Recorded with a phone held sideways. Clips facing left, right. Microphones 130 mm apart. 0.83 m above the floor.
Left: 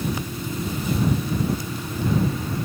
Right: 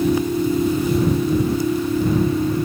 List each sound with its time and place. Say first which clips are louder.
0.0 s a machine running: right 11 dB; 70° right (ahead or behind)